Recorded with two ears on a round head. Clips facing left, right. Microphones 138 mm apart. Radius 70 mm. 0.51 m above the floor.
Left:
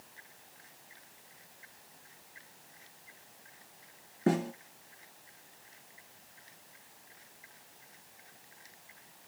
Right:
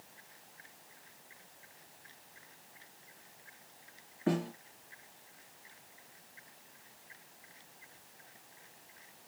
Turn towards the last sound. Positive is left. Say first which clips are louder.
# left 3 dB
turn(degrees=50)  # may be behind; listen again after turning